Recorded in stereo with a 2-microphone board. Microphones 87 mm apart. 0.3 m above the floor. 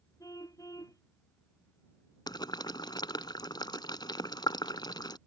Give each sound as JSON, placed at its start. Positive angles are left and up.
{"t": 0.2, "sound": "a car horn", "side_deg": 40}
{"t": 2.3, "sound": "boiling", "side_deg": 55}